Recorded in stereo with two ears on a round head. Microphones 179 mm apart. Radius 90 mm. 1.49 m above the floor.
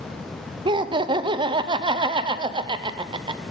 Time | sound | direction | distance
0.7 | laughter | 25° right (ahead or behind) | 0.5 m